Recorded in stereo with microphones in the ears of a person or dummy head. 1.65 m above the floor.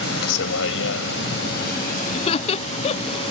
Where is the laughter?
35° left (ahead or behind).